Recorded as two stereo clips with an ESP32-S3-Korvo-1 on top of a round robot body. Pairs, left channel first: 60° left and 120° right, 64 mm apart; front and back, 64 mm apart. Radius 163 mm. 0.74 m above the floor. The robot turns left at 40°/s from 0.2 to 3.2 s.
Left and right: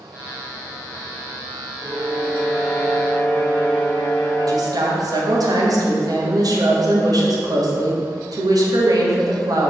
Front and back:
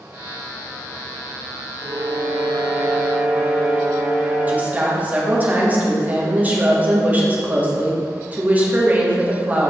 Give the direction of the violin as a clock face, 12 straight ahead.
6 o'clock.